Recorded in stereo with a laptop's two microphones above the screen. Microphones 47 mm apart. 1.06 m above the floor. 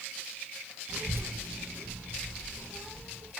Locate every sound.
0.9 s a child speaking: 45° right (ahead or behind), 0.6 m; by 3.3 s 40° right (ahead or behind), 1.6 m